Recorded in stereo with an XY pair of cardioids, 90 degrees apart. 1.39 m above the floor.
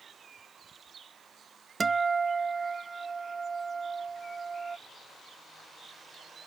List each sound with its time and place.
1.8 s a guitar: 35° right